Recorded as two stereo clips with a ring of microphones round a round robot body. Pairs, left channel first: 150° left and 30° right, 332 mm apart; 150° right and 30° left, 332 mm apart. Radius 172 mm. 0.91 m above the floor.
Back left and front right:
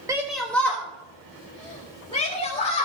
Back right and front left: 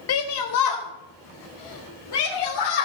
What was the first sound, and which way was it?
A shout, 110° right.